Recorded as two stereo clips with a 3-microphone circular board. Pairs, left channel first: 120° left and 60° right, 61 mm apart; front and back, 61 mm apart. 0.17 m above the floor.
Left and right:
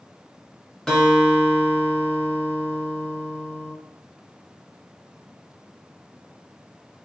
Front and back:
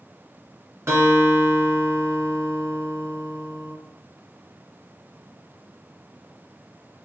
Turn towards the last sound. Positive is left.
turn(degrees=-160)